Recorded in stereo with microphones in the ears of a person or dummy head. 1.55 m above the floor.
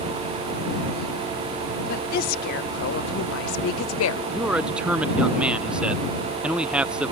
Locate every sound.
1.9 s a woman speaking: 45° left (ahead or behind); by 4.2 s 90° left
4.3 s a man speaking: 5° right (ahead or behind)